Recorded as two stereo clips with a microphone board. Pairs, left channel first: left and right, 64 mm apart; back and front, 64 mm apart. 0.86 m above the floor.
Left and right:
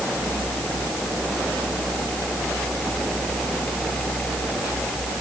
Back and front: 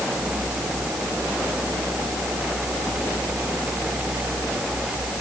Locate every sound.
Only background noise.